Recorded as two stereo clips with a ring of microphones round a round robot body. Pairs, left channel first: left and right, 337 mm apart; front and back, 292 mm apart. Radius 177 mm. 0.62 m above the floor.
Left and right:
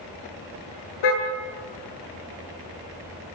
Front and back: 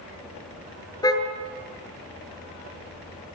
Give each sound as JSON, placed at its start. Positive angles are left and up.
{"t": 1.0, "sound": "a car horn", "azimuth_deg": 75, "distance_m": 6.5}